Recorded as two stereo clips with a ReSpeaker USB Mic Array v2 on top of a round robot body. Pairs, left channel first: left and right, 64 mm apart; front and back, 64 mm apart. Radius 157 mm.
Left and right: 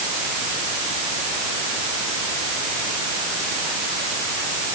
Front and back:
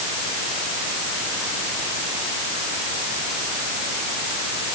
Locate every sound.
Only background noise.